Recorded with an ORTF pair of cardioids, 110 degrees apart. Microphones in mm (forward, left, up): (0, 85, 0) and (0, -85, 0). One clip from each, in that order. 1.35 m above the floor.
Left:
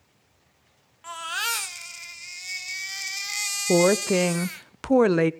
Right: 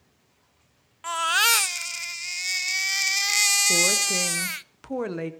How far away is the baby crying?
About 0.6 m.